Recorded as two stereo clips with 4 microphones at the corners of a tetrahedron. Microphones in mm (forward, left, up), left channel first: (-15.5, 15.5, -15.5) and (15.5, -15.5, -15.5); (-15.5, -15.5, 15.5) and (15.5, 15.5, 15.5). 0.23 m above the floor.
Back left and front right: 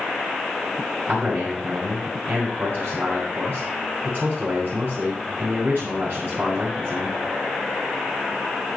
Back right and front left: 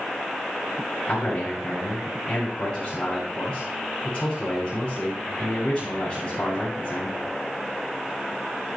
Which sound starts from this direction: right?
A man speaking, at 1.1 s.